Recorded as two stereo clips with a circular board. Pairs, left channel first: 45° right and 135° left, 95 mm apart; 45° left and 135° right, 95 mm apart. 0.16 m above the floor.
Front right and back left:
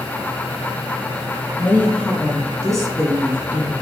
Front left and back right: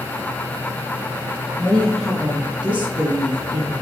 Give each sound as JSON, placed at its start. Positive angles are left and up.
{"t": 1.6, "sound": "a woman speaking", "azimuth_deg": 0, "distance_m": 1.4}